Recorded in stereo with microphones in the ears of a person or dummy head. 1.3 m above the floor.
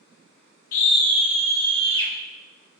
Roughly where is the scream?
Left.